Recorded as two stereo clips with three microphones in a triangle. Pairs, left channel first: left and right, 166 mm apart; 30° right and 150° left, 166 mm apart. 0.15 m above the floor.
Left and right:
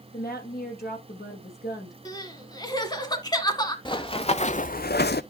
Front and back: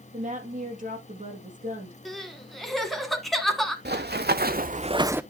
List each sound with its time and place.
0.1 s a woman speaking: 110° left, 4 m
2.0 s crying: 60° left, 1.4 m
3.9 s running footsteps: 150° left, 1.1 m; by 5.2 s 70° left, 0.5 m